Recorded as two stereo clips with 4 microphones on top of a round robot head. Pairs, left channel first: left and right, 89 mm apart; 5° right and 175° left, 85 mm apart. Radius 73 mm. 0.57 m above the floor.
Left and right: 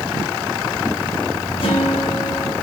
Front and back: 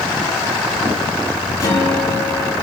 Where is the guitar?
50° left, 5.5 m.